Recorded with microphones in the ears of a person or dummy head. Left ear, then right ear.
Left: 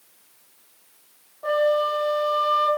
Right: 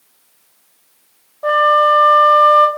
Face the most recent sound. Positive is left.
turn(degrees=-60)  # may be behind; listen again after turning